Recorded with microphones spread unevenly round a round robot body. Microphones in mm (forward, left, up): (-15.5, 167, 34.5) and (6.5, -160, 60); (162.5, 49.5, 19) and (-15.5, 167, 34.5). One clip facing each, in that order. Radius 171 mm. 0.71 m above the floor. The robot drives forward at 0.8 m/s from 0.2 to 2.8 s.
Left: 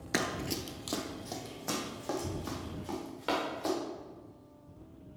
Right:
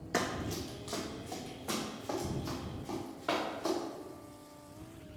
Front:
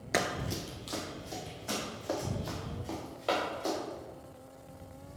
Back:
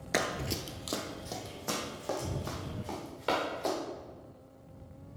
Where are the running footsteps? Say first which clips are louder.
Left 1 dB, even; 70° left, 0.7 m; by 3.7 s 130° left, 5 m.